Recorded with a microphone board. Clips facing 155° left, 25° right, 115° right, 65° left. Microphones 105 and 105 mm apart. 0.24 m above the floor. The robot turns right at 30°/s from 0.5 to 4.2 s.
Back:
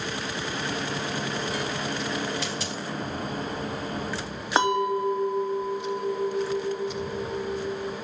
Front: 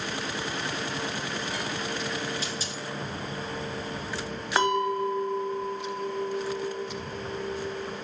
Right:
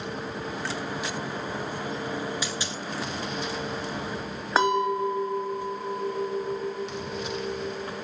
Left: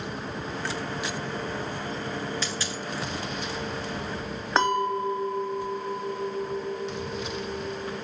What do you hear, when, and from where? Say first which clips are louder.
2.4 s a dropped coin: back 3 dB, even; 170° left, 1.4 m; by 2.8 s 175° right, 1.4 m
4.6 s a clink: back 2 dB, right 1 dB; 170° left, 0.9 m